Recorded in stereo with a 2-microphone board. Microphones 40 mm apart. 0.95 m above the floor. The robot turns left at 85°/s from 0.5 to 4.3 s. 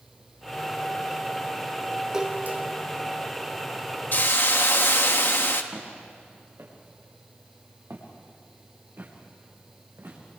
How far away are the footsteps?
About 7 m.